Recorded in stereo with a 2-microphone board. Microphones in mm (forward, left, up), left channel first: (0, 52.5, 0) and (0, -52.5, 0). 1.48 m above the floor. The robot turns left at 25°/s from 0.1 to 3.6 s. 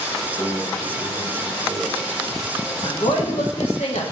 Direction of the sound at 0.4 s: 120° left.